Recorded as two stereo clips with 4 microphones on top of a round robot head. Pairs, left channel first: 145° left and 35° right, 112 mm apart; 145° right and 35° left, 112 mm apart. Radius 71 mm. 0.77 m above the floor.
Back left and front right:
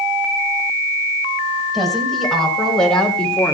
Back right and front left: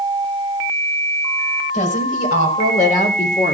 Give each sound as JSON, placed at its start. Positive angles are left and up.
{"t": 1.7, "sound": "a woman speaking", "azimuth_deg": -125, "distance_m": 5.0}